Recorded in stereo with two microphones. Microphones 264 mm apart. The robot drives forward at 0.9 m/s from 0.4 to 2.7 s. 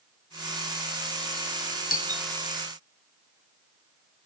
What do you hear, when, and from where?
1.9 s a doorbell: 35° left (ahead or behind), 0.6 m; by 2.3 s 25° left (ahead or behind), 0.8 m